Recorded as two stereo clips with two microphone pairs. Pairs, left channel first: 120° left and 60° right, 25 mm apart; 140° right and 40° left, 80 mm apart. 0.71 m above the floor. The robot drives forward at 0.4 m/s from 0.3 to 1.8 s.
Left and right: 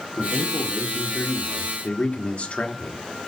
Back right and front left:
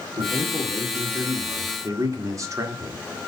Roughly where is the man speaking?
Ahead left.